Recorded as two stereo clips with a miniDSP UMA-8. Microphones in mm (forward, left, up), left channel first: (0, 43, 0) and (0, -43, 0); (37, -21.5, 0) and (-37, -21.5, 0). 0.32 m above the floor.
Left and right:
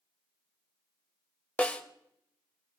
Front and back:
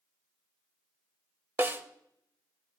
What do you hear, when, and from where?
1.6 s a snare drum: 150° left, 0.6 m